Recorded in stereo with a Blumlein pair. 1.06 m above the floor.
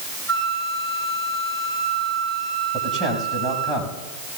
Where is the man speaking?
5° right, 6 m.